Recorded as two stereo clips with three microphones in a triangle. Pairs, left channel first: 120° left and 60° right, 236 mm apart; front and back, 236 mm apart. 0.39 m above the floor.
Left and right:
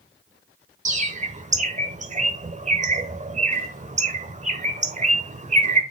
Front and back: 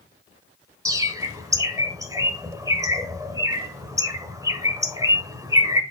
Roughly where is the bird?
Right.